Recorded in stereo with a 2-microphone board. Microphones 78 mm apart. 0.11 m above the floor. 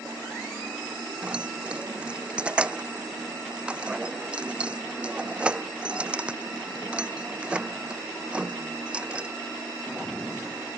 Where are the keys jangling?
15° right (ahead or behind).